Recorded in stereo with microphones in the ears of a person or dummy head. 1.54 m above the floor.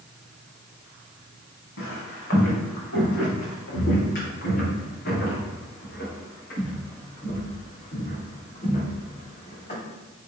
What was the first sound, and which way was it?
Footsteps, 65° left (ahead or behind).